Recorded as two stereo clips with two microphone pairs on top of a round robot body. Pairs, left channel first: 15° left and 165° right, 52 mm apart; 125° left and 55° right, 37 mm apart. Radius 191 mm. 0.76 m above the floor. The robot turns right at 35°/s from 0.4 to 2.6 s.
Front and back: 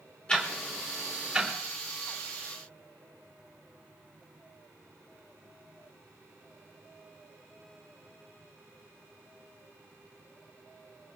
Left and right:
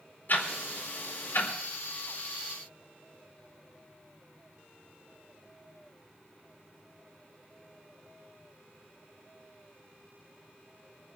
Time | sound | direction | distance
0.3 | ticking | 90° left | 4.5 m